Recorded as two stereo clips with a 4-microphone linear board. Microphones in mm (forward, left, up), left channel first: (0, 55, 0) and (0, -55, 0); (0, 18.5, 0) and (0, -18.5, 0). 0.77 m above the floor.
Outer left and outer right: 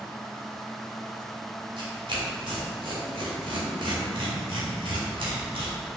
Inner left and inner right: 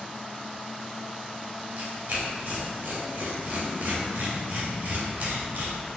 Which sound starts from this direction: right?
Tearing paper, at 1.8 s.